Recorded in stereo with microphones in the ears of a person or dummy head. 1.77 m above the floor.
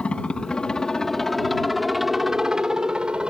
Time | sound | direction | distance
0.0 | a helicopter | 5° left (ahead or behind) | ?